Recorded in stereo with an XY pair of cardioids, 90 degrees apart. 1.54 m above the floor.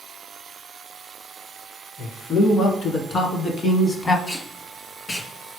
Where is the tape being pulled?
65° left, 1.8 m.